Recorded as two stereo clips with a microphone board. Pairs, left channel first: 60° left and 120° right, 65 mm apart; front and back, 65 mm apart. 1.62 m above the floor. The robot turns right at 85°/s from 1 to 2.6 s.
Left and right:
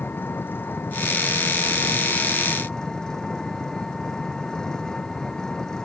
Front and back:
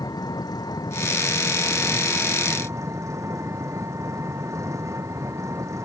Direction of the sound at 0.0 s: Straight ahead.